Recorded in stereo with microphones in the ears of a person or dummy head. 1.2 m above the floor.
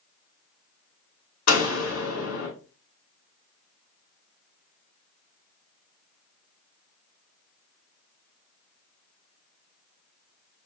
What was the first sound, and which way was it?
A door slam, 80° left.